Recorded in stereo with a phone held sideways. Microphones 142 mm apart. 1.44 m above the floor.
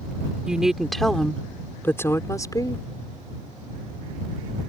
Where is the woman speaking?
5° right (ahead or behind); by 2.9 s 30° left (ahead or behind).